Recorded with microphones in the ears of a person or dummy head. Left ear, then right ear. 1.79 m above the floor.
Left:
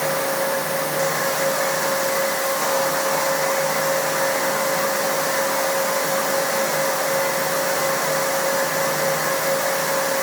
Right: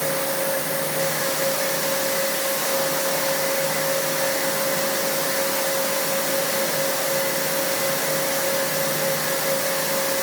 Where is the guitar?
No guitar in this recording.